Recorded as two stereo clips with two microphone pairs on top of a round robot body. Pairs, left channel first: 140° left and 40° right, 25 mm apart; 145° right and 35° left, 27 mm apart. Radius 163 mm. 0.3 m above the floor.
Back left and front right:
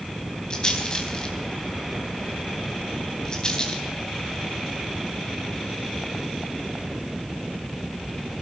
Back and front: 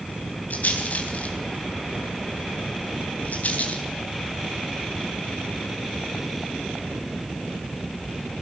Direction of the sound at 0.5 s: 165° right.